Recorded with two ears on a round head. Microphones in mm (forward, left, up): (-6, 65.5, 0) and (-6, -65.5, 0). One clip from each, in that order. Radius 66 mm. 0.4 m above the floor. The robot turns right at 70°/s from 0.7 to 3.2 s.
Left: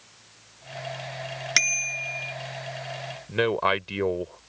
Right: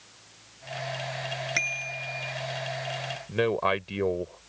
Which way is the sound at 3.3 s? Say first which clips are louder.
Left 2 dB; 25° left (ahead or behind).